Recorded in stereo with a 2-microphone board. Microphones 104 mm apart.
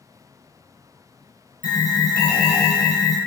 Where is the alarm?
40° left (ahead or behind), 1.3 m.